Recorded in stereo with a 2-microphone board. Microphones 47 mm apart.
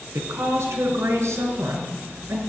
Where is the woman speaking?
75° right (ahead or behind), 3.5 m; by 2.4 s 70° right (ahead or behind), 5 m.